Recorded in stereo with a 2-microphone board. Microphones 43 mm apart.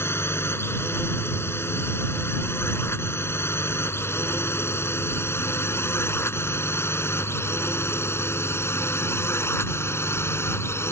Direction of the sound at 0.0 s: 70° left (ahead or behind).